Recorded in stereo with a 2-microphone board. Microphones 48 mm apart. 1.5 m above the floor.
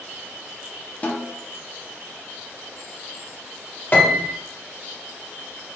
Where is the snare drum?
30° left (ahead or behind), 0.6 m.